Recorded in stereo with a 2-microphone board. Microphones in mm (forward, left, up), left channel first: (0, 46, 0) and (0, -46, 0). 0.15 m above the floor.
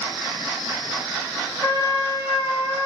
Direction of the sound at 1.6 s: 40° left (ahead or behind).